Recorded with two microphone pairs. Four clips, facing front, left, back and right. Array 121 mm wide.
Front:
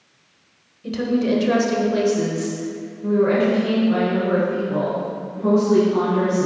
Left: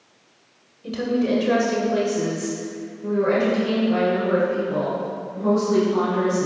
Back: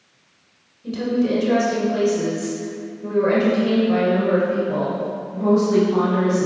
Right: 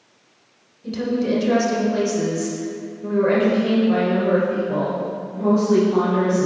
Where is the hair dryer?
I don't hear a hair dryer.